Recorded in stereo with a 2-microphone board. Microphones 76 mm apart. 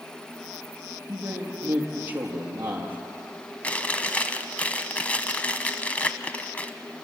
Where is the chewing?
20° left (ahead or behind), 0.9 m.